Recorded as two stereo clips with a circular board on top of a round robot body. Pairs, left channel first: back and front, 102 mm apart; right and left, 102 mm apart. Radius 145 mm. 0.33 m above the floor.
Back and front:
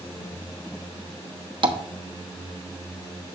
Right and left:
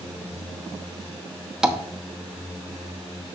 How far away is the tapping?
About 1.2 m.